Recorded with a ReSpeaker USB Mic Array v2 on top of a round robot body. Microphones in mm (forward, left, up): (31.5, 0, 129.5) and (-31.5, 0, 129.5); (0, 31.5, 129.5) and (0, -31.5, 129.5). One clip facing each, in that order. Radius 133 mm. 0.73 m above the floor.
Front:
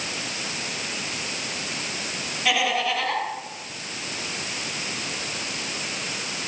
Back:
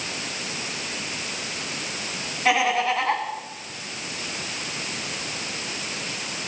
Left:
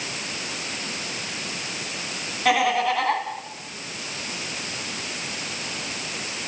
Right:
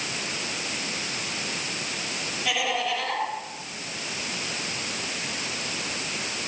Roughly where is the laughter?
Behind left.